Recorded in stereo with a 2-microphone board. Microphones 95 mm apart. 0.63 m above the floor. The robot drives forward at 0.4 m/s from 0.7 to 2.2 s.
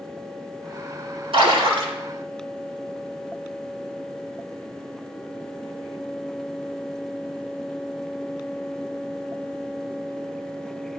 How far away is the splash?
About 3.5 m.